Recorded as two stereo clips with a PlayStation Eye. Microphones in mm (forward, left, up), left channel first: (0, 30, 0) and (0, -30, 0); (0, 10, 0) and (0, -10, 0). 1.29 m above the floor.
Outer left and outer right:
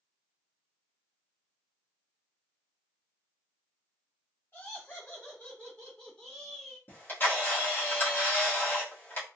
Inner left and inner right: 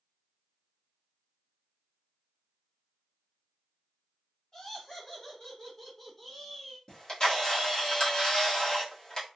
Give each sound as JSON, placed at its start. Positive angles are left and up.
{"t": 4.5, "sound": "laughter", "side_deg": 40, "distance_m": 1.9}
{"t": 6.9, "sound": "a camera shutter", "side_deg": 35, "distance_m": 1.5}